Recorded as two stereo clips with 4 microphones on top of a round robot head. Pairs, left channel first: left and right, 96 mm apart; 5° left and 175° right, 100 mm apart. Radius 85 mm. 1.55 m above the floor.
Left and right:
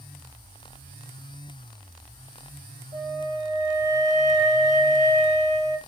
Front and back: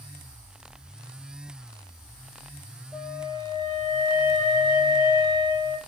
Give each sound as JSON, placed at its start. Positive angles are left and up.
{"t": 2.9, "sound": "a flute", "azimuth_deg": -115, "distance_m": 2.0}